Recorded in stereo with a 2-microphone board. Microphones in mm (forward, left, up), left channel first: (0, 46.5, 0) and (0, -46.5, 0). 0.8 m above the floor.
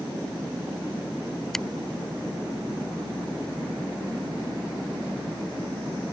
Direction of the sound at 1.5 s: 5° left (ahead or behind).